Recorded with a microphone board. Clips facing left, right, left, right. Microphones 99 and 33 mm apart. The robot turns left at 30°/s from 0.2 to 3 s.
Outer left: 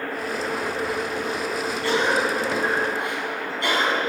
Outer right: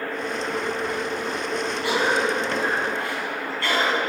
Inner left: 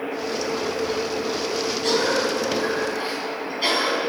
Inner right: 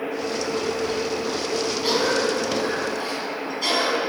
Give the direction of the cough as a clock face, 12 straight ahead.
5 o'clock.